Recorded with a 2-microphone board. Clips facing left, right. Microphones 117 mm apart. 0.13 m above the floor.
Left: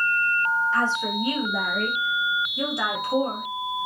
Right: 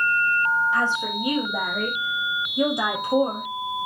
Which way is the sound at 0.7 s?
15° right (ahead or behind).